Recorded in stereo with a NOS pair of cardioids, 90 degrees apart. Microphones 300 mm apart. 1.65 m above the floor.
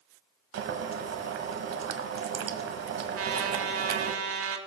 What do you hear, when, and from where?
0.5 s boiling: 55° right, 1.2 m
3.1 s a trumpet: 50° right, 1.4 m